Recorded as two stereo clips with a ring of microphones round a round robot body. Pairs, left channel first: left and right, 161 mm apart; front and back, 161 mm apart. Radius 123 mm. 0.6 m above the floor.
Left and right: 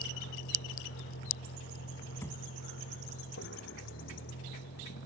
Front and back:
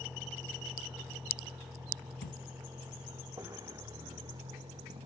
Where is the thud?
15° left.